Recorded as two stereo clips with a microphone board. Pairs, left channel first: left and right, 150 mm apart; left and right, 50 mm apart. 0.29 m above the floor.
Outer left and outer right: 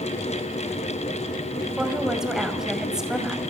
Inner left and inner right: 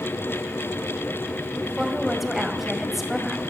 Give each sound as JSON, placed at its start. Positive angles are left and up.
{"t": 1.6, "sound": "a woman speaking", "side_deg": -5, "distance_m": 1.9}